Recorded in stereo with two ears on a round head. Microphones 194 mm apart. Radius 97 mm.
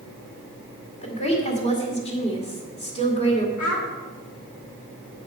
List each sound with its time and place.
1.0 s a woman speaking: 30° left (ahead or behind), 2 m
3.6 s a child speaking: 75° left (ahead or behind), 2.5 m